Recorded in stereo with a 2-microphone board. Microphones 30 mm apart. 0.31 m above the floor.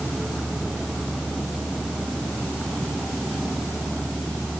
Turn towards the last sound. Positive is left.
No sound to turn to.